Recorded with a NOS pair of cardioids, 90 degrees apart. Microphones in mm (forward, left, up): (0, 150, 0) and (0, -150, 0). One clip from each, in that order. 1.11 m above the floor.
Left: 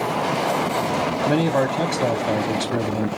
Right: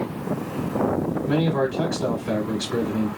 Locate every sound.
1.3 s a man speaking: 60° left, 0.8 m